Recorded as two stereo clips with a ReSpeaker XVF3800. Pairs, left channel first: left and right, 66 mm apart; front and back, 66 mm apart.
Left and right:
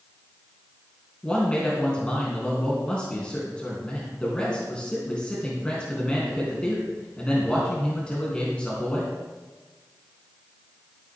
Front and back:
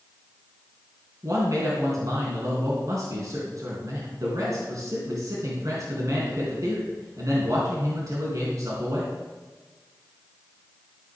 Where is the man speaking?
160° left, 3 m.